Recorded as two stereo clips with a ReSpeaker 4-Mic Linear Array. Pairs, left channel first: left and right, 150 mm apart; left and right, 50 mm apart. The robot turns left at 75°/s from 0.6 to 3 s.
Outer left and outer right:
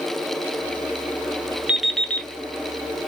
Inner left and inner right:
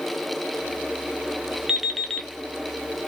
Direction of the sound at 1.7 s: 165° right.